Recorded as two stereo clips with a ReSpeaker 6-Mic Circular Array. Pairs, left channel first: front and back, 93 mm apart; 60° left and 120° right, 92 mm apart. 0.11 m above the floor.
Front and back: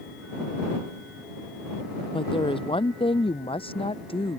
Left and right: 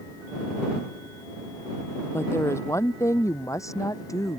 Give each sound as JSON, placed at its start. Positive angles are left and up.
{"t": 2.1, "sound": "a woman speaking", "azimuth_deg": 0}